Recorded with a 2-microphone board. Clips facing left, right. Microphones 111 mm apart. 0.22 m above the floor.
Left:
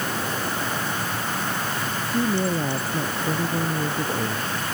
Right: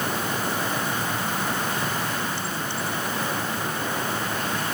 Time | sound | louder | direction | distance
1.9 | a woman speaking | left 5 dB | 85° left | ?